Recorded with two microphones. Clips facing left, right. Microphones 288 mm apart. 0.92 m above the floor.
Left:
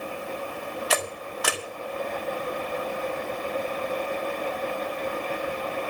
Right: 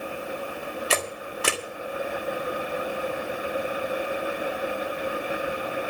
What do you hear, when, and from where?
0.9 s a camera shutter: 30° right (ahead or behind), 1.7 m